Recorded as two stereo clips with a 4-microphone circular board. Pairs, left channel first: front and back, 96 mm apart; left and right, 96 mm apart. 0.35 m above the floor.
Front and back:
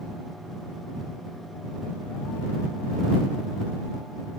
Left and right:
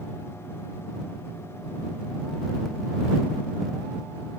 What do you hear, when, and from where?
Only background noise.